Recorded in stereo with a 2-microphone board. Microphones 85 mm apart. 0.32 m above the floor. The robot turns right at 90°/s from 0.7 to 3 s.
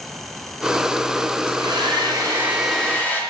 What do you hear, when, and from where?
1.5 s a hair dryer: 115° right, 2.5 m; by 3.2 s 25° left, 2.5 m